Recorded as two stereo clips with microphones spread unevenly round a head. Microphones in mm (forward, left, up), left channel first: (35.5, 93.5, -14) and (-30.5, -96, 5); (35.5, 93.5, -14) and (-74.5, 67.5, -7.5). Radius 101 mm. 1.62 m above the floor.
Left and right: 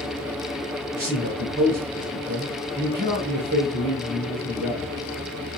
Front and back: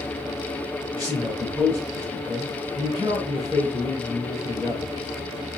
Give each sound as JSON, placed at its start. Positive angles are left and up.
{"t": 0.9, "sound": "a man speaking", "azimuth_deg": -80, "distance_m": 1.5}